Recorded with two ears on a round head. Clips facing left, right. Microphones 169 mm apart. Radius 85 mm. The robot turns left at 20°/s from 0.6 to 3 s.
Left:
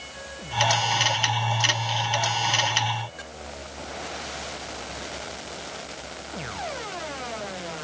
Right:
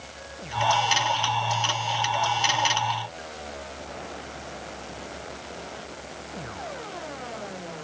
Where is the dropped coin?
No dropped coin in this recording.